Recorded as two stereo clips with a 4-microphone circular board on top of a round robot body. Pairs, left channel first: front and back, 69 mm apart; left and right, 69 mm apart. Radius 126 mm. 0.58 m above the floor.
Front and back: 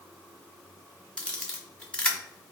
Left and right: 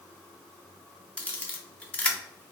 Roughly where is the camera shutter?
Ahead left.